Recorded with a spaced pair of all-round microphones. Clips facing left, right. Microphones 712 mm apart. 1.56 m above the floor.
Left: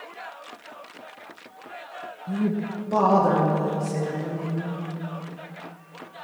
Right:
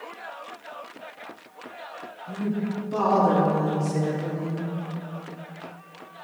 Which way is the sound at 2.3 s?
65° left (ahead or behind).